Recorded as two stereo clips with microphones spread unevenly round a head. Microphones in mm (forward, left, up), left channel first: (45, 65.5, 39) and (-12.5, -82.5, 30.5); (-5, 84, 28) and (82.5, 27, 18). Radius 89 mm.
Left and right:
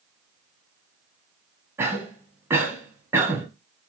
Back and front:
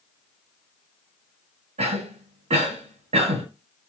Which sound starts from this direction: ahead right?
A cough, at 1.8 s.